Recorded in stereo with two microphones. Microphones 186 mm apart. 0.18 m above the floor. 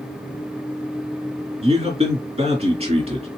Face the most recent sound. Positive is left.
turn(degrees=-35)  # may be behind; listen again after turning